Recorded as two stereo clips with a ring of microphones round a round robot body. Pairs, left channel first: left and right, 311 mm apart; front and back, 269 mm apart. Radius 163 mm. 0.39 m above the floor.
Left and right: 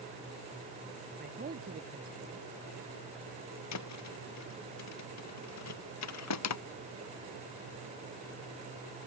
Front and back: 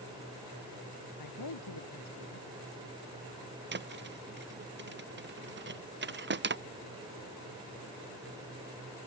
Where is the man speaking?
25° right.